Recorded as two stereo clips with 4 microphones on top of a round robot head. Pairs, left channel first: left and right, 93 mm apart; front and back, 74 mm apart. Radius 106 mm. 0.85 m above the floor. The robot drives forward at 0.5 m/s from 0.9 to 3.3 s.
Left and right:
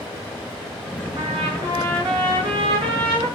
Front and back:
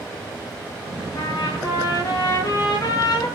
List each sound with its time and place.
1.1 s a trumpet: 45° right, 9.5 m; by 3.3 s 50° right, 8.5 m